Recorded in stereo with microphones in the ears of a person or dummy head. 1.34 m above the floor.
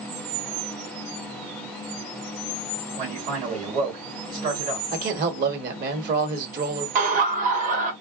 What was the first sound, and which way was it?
A man speaking, 30° right (ahead or behind).